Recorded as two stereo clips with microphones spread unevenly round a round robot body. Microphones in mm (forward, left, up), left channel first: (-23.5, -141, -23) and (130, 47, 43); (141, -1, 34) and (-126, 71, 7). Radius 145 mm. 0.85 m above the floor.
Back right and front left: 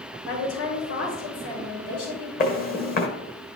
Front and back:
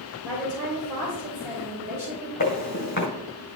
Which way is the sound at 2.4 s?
70° right.